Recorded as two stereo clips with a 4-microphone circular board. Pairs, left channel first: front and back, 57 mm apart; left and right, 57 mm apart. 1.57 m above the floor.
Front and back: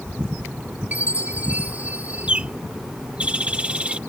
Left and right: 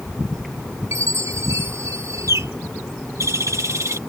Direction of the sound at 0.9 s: 115° right.